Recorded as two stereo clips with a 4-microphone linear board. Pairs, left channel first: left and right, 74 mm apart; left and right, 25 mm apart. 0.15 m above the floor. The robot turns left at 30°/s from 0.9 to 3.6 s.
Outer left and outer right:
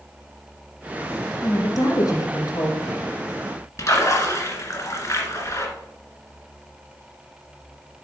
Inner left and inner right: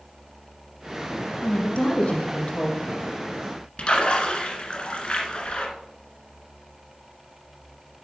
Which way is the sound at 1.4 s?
125° left.